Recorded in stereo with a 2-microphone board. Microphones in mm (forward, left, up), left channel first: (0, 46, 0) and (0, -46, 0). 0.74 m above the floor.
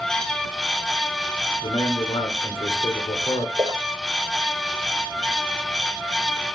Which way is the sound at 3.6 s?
50° right (ahead or behind).